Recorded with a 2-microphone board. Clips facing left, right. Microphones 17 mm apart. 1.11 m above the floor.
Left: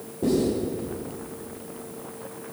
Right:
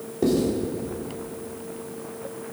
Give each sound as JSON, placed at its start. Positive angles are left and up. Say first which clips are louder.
{"t": 0.2, "sound": "writing", "louder": "right 1 dB", "side_deg": -60, "distance_m": 3.0}